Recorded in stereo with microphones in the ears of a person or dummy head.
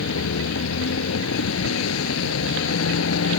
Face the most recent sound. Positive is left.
turn(degrees=90)